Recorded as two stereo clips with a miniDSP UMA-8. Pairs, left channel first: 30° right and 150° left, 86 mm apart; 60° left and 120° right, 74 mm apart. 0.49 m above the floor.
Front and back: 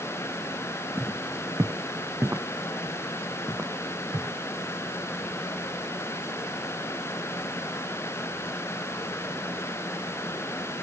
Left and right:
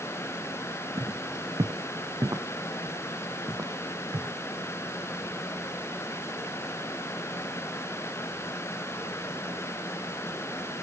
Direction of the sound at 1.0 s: 150° right.